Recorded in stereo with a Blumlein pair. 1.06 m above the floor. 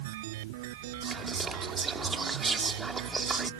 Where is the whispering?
15° right.